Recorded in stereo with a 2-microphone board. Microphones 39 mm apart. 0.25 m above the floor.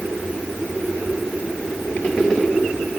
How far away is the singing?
I don't hear singing.